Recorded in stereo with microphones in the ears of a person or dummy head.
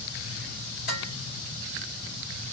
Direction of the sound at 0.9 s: 60° left (ahead or behind).